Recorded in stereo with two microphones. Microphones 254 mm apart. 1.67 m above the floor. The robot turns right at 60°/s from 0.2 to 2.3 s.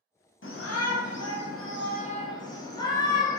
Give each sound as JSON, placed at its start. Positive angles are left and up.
{"t": 0.4, "sound": "a shout", "azimuth_deg": 50, "distance_m": 0.6}